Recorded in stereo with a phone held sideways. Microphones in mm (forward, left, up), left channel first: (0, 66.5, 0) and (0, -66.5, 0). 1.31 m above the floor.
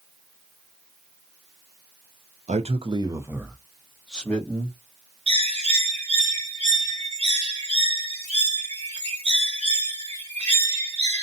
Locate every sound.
2.5 s a man speaking: 60° right (ahead or behind), 0.5 m; by 4.8 s 15° left (ahead or behind), 1.2 m
5.3 s a bird: 55° right (ahead or behind), 1.7 m